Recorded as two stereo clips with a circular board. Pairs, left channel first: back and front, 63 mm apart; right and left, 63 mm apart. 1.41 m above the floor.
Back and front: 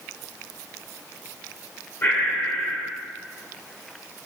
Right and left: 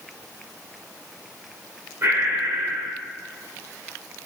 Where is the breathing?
130° left, 2.5 m.